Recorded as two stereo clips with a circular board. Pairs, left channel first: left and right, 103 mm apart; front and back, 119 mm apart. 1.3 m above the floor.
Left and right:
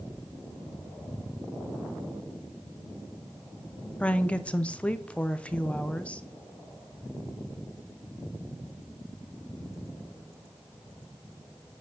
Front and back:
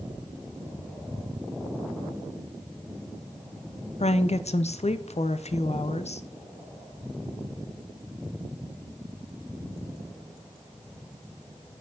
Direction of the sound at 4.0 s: 10° left.